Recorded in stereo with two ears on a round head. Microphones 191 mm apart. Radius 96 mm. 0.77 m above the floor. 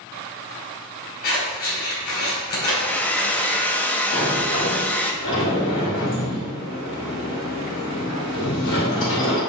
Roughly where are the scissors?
Left.